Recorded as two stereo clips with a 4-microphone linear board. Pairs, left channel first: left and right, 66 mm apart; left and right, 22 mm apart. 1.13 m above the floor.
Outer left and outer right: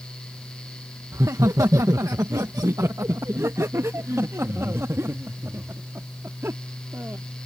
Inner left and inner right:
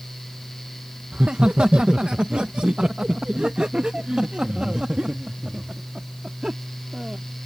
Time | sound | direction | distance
1.1 | laughter | 60° right (ahead or behind) | ?